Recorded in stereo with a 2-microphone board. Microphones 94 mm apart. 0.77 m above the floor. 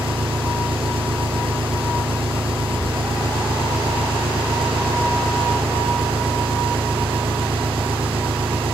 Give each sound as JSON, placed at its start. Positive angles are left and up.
{"t": 0.0, "sound": "an engine running", "side_deg": -75, "distance_m": 3.5}